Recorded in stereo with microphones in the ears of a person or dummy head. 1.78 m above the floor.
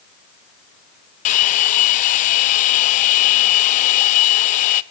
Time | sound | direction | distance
1.2 | a hair dryer | 45° left (ahead or behind) | 0.8 m